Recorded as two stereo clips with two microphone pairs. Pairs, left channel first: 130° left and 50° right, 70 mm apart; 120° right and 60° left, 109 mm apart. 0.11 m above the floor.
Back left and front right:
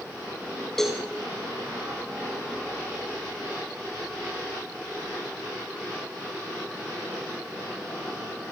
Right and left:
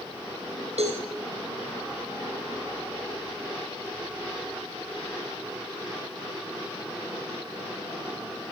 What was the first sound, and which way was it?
A cowbell, 40° left.